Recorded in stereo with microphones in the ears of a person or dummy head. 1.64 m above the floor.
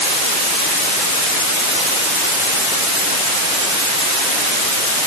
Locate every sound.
Only background noise.